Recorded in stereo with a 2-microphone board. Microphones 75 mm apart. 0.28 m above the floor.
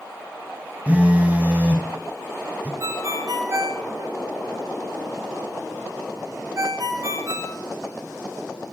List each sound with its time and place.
0.9 s a phone buzzing: 20° right (ahead or behind), 1.4 m
2.8 s a ringtone: 45° right (ahead or behind), 1.3 m